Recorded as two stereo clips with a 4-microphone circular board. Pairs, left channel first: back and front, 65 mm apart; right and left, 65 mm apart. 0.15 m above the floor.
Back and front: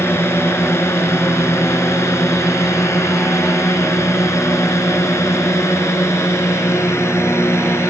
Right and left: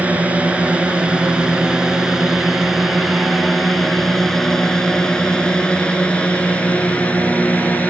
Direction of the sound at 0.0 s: 150° left.